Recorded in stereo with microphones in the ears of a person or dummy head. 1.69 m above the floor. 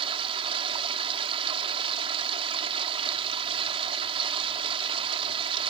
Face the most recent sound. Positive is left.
turn(degrees=-30)  # may be behind; listen again after turning